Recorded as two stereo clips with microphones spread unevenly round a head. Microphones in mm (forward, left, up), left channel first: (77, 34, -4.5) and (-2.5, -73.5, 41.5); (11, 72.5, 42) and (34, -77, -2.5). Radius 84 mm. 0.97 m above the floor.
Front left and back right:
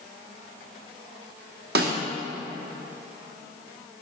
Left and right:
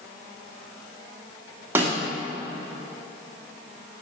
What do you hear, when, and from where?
1.8 s a snare drum: 160° right, 1.2 m